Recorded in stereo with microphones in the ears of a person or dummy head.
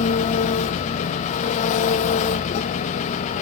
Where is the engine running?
40° left (ahead or behind), 0.9 m.